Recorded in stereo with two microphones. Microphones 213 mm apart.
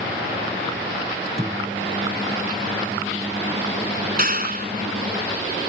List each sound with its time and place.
1.2 s a microwave: 15° right (ahead or behind)
4.2 s a clap: 40° right (ahead or behind)